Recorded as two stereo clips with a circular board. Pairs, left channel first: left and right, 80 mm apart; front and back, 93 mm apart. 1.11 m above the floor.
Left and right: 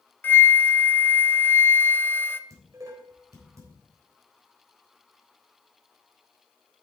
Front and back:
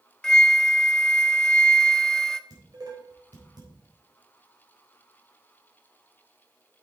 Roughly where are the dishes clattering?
Behind right.